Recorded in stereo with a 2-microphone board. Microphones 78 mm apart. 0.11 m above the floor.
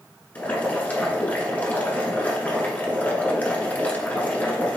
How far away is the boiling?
About 1.0 m.